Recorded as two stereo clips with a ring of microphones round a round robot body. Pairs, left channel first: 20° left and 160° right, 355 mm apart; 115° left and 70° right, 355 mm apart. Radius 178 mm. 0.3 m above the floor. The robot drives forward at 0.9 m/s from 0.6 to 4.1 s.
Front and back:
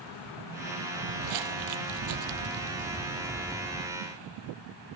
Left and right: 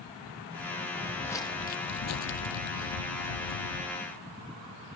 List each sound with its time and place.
0.9 s footsteps: 150° right, 0.8 m; by 3.9 s 110° left, 1.2 m